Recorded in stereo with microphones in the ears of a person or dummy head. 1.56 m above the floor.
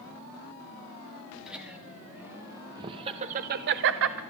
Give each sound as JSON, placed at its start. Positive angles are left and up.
{"t": 1.5, "sound": "laughter", "side_deg": -5, "distance_m": 2.5}